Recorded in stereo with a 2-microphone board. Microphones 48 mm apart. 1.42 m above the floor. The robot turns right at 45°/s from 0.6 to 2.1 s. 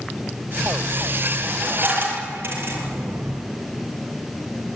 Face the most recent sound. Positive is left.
turn(degrees=-50)  # may be behind; listen again after turning